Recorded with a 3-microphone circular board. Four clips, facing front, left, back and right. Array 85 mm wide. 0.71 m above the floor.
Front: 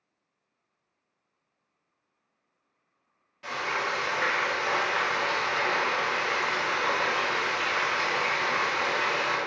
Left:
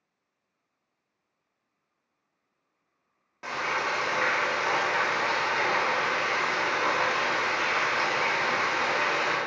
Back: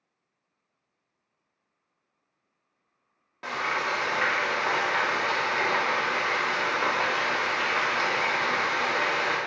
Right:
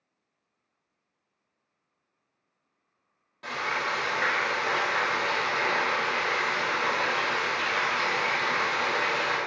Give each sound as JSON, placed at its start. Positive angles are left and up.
{"t": 3.4, "sound": "frying", "azimuth_deg": 160, "distance_m": 0.8}